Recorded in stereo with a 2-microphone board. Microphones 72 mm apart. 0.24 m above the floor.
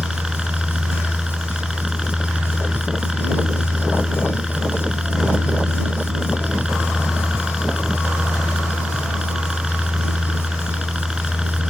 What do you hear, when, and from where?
0.0 s a helicopter: 10° right (ahead or behind)